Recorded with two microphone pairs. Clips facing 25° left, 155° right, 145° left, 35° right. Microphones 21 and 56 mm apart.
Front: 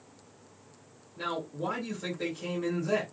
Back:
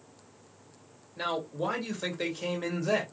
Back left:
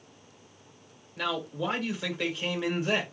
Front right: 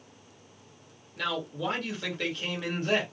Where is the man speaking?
140° right, 1.1 m.